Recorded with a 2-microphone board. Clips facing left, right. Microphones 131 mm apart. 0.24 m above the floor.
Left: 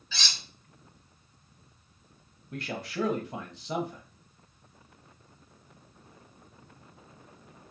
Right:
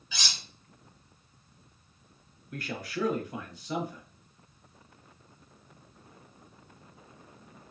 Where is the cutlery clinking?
15° right (ahead or behind), 0.7 m.